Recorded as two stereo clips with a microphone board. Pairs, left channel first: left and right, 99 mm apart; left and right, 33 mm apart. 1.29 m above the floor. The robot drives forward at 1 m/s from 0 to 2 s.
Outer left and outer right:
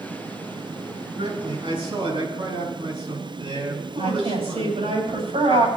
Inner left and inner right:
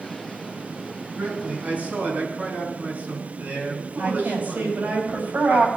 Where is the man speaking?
60° right (ahead or behind), 8.5 m.